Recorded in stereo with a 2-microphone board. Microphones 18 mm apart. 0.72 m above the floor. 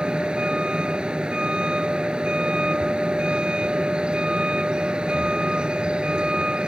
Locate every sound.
0.0 s a vehicle: 70° right (ahead or behind)